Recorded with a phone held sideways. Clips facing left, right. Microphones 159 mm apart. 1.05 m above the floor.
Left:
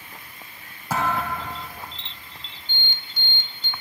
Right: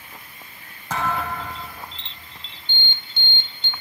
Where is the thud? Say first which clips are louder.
Left 1 dB; 10° left (ahead or behind), 6 m.